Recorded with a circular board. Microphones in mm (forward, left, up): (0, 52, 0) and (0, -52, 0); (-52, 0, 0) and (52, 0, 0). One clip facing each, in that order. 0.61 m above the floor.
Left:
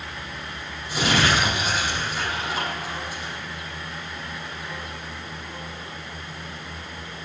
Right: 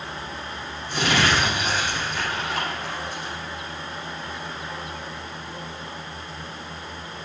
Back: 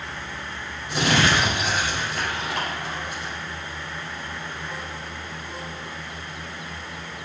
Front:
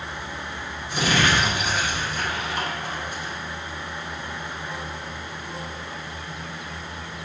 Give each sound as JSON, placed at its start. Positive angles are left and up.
{"t": 0.9, "sound": "crumpling", "azimuth_deg": 170, "distance_m": 5.5}